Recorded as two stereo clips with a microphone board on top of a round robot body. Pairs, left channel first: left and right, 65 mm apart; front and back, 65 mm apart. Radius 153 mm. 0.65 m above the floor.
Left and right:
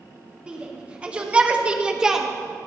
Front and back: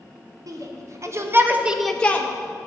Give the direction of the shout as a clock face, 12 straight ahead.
5 o'clock.